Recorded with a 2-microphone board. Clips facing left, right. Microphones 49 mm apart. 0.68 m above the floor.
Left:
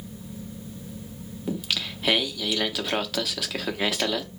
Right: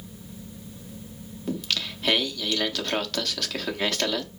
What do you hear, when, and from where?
1.5 s singing: 10° left (ahead or behind), 0.6 m